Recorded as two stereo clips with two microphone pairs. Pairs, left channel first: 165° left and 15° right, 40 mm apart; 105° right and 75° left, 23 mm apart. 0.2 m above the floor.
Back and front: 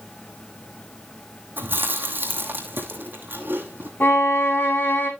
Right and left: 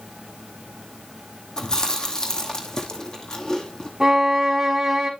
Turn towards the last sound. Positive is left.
turn(degrees=150)